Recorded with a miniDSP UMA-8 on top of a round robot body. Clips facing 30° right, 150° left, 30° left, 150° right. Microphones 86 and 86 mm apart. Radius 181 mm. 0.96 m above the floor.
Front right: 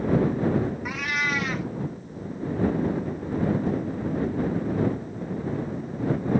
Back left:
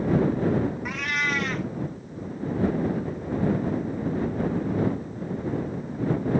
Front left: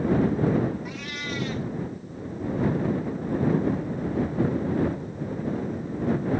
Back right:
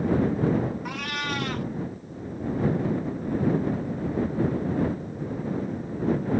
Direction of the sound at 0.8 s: 115° right.